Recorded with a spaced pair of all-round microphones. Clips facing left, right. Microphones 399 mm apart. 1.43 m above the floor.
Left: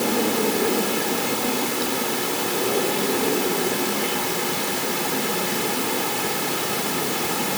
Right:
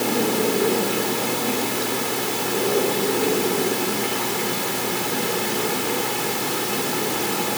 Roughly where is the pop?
No pop in this recording.